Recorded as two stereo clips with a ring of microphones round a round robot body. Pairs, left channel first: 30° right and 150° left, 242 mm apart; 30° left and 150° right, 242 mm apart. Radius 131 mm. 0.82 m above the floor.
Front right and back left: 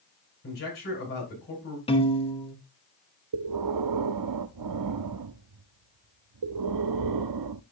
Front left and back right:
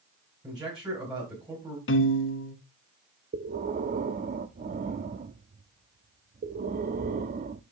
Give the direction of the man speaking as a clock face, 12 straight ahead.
3 o'clock.